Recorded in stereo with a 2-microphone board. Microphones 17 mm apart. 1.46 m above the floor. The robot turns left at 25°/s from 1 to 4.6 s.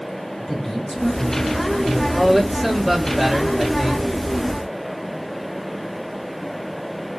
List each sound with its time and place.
0.4 s a man speaking: 25° left (ahead or behind), 4 m; by 2.0 s 50° left (ahead or behind), 4 m
2.1 s a man speaking: 10° left, 2 m; by 4.1 s 35° right, 2 m